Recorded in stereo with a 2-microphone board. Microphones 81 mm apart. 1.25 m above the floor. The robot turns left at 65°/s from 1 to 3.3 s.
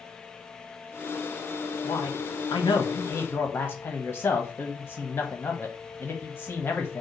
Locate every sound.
1.8 s a man speaking: 120° left, 1.2 m; by 7.0 s 25° left, 1.2 m